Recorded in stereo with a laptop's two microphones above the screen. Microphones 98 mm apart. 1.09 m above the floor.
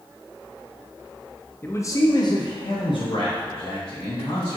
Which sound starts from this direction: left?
A man speaking, at 1.6 s.